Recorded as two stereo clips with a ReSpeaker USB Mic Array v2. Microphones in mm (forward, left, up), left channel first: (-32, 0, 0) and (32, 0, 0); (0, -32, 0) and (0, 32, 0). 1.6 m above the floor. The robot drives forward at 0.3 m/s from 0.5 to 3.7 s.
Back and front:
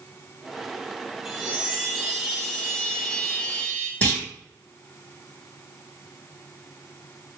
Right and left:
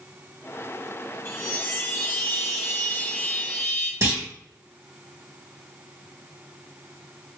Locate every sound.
1.2 s a chime: 80° right, 1.7 m; by 3.9 s 120° right, 1.7 m
4.0 s a clunk: 120° left, 2 m